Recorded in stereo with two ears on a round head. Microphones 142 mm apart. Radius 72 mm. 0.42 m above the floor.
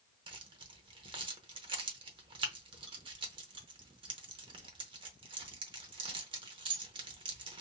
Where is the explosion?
I don't hear an explosion.